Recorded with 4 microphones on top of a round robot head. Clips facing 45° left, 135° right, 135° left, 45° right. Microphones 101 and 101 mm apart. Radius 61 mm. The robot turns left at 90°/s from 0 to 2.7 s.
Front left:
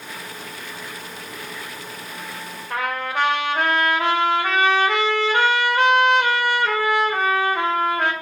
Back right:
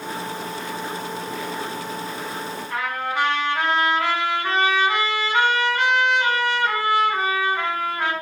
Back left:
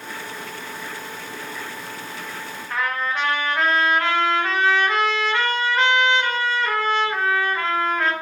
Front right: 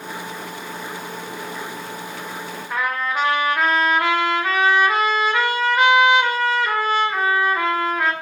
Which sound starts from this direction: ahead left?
A trumpet, at 2.7 s.